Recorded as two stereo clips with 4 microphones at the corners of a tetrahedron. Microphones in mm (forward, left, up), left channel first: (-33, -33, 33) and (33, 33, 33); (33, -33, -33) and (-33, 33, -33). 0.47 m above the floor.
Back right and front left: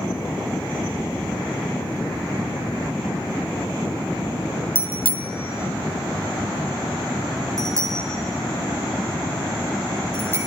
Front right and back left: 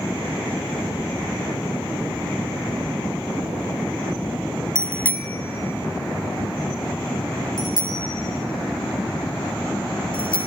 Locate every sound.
4.8 s a bicycle bell: 35° left, 2 m; by 10.5 s 20° right, 6 m